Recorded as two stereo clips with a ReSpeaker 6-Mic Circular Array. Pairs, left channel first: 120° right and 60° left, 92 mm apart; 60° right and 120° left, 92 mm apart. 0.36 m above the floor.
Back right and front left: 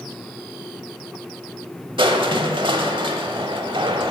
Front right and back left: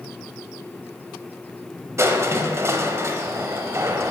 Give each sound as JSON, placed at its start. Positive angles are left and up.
{"t": 2.0, "sound": "crushing", "azimuth_deg": 65, "distance_m": 0.8}